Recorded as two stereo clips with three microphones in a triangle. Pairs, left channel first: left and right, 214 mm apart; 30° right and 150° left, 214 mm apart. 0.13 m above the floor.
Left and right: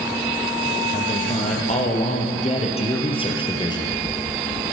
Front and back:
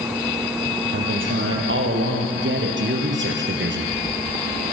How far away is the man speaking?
About 5 m.